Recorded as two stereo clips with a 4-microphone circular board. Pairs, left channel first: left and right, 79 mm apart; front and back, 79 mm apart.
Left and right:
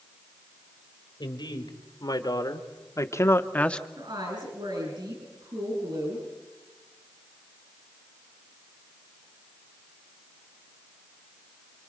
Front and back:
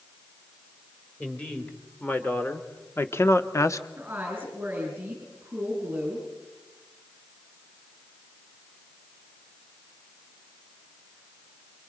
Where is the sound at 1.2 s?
75° left, 3 m; by 3.9 s 10° left, 1.0 m.